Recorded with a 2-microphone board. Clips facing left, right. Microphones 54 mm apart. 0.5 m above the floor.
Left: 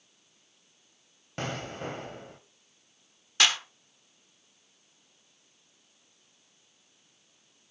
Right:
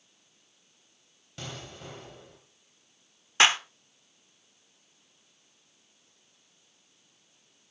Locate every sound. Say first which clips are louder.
1.4 s an explosion: left 8 dB; 45° left (ahead or behind), 1.9 m
3.4 s a clap: right 4 dB; 30° right (ahead or behind), 1.1 m